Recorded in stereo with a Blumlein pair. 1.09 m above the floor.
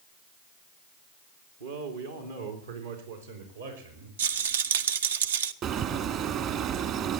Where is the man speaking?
65° right, 1.9 m; by 4.1 s 80° right, 5 m.